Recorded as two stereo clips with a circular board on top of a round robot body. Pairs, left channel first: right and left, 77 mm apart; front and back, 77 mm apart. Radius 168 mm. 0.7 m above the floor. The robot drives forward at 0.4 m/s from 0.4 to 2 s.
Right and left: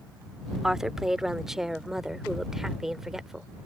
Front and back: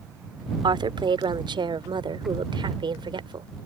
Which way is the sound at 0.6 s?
175° left.